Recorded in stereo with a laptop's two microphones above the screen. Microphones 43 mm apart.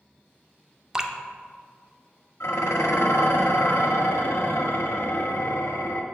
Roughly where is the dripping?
Centre.